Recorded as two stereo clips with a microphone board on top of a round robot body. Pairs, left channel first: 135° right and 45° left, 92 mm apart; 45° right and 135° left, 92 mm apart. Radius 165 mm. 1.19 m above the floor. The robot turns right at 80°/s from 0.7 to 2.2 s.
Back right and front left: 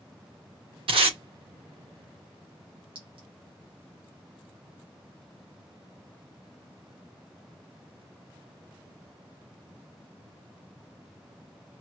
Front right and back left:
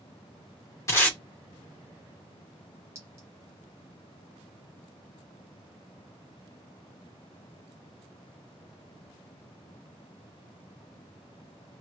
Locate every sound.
0.9 s tape being pulled: 15° left, 1.0 m; by 1.2 s 40° left, 1.0 m
3.0 s a clink: 75° left, 0.9 m